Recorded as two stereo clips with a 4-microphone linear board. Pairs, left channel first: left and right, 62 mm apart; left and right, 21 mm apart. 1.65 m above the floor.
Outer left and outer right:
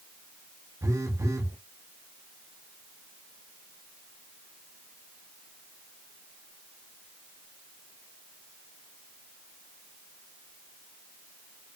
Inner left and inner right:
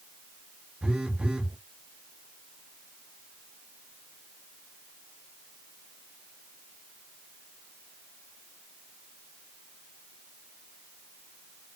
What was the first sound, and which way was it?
A phone buzzing, 60° right (ahead or behind).